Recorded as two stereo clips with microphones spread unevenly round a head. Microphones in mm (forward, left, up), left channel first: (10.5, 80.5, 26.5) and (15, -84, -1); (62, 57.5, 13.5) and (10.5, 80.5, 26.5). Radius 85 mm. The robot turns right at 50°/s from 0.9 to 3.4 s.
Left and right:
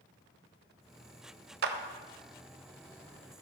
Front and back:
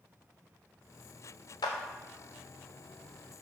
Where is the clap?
60° right, 0.6 m; by 1.8 s 55° right, 0.6 m.